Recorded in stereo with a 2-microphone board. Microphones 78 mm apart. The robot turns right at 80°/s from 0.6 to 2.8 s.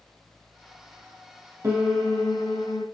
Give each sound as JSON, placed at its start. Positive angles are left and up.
{"t": 1.6, "sound": "a piano", "azimuth_deg": -35, "distance_m": 3.0}